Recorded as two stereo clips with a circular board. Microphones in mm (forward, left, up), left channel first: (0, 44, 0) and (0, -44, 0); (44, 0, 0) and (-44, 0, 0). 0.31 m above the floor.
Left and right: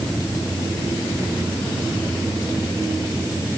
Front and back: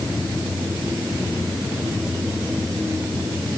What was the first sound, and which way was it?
Only background noise.